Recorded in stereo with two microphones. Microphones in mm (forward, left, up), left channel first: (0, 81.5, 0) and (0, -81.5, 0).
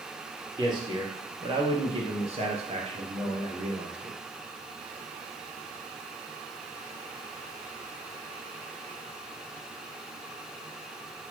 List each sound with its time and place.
0.6 s a man speaking: 25° right (ahead or behind), 2.5 m; by 4.2 s 40° right (ahead or behind), 2 m